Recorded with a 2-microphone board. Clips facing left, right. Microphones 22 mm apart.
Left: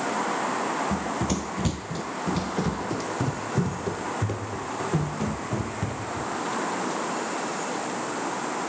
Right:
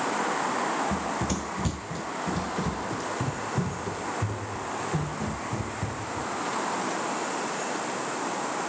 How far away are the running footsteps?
About 0.9 m.